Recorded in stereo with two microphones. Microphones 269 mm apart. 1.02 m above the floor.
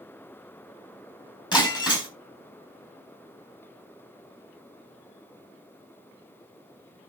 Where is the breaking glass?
15° left (ahead or behind), 4 m.